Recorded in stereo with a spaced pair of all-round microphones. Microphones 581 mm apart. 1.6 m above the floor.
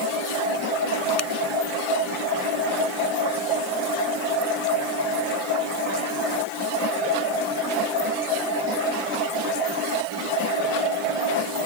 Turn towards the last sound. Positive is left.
turn(degrees=80)